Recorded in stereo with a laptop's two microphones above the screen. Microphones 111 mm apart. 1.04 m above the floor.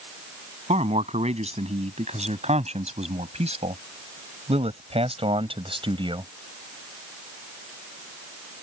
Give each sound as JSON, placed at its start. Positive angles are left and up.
{"t": 0.7, "sound": "a man speaking", "side_deg": -80}